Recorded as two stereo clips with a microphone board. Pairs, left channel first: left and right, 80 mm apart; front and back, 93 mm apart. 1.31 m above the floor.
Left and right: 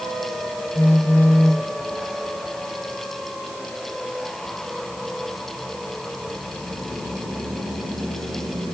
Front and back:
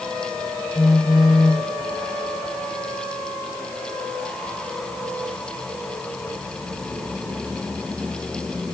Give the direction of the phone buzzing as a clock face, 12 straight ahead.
9 o'clock.